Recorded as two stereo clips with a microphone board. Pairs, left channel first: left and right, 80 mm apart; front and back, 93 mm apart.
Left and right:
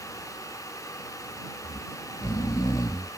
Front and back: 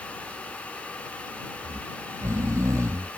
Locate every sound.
1.6 s snoring: 125° left